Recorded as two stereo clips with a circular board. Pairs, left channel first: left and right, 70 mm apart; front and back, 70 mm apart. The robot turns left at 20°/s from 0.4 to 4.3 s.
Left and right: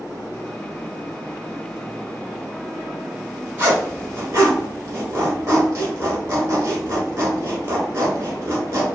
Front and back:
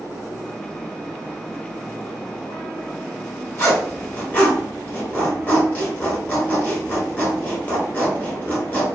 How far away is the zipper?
About 1.1 m.